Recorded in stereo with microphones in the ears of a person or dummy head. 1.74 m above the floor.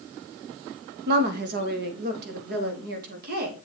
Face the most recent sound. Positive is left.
turn(degrees=-55)  # may be behind; listen again after turning